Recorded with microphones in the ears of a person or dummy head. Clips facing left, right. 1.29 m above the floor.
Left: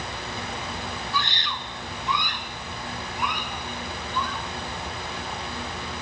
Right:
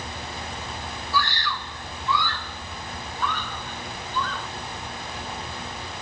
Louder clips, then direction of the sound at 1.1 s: Right 3 dB; 20° left (ahead or behind).